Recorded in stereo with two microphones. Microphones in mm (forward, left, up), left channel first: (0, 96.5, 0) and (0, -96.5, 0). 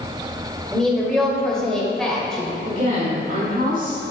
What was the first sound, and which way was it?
A woman speaking, 5° left (ahead or behind).